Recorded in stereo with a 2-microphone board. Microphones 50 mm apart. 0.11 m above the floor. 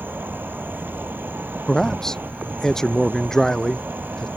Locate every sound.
0.0 s an insect: 45° right (ahead or behind)
1.7 s a man speaking: 10° left (ahead or behind)